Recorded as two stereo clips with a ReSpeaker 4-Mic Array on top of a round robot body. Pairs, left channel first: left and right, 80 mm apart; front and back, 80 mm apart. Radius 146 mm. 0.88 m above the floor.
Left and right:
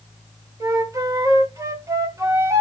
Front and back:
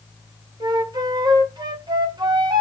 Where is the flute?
145° right, 2 m.